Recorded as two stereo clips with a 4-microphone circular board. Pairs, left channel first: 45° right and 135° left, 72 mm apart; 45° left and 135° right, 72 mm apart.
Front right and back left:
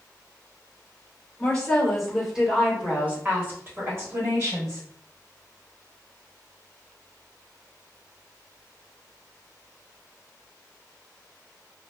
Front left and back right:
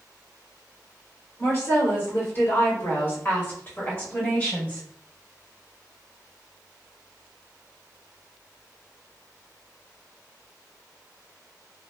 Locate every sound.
1.4 s a woman speaking: 25° left, 1.3 m; by 4.8 s 110° left, 1.9 m